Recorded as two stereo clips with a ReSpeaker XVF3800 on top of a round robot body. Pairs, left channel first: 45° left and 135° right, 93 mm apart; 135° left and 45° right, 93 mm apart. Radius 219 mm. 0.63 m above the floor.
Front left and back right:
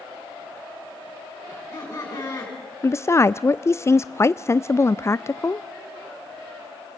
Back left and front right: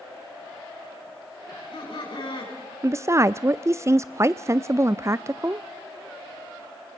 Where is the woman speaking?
Straight ahead, 0.6 m.